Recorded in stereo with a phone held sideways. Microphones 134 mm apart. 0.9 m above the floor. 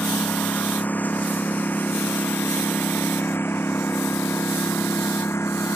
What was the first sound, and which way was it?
A lawn mower, 10° left (ahead or behind).